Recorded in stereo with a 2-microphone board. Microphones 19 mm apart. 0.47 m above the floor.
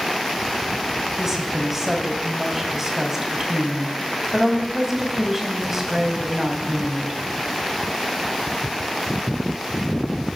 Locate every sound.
1.2 s a woman speaking: 15° right (ahead or behind), 3 m